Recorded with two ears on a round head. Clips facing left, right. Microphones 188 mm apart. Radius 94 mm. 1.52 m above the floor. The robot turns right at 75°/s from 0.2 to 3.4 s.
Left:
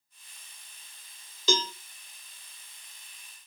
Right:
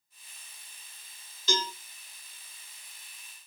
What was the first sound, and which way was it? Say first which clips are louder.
A cowbell: left 3 dB; 65° left (ahead or behind).